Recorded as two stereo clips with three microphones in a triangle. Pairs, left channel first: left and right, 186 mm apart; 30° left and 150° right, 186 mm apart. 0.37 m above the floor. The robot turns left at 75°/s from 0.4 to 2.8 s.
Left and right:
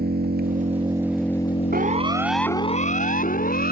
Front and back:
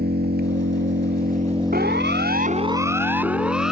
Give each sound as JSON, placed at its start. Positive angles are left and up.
{"t": 0.0, "sound": "an engine running", "azimuth_deg": -120}
{"t": 1.7, "sound": "a siren", "azimuth_deg": -120}